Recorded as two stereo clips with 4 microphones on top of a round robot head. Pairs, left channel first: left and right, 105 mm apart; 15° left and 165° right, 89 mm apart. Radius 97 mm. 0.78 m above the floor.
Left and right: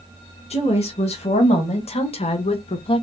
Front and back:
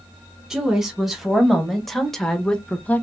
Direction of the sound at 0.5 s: 110° left.